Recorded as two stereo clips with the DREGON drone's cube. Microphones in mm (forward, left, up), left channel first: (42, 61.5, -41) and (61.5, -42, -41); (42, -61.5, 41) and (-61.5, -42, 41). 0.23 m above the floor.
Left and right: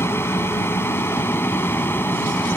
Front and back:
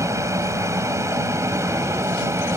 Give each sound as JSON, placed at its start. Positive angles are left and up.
{"t": 0.0, "sound": "an aircraft", "azimuth_deg": 145}